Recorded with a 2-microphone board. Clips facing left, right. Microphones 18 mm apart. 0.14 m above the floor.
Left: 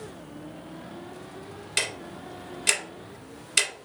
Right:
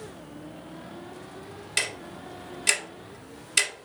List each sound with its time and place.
1.8 s ticking: 5° left (ahead or behind), 0.8 m